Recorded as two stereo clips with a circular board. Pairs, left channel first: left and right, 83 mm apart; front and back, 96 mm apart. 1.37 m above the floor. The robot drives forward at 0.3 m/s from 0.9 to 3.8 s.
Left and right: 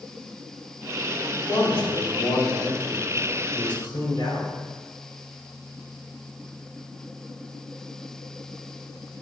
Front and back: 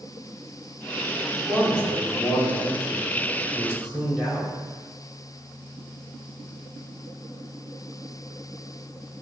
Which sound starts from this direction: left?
A man speaking, at 1.4 s.